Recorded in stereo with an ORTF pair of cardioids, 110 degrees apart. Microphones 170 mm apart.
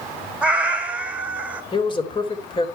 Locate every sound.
0.4 s a cat meowing: 5° right, 2 m
1.7 s a man speaking: 30° left, 3.5 m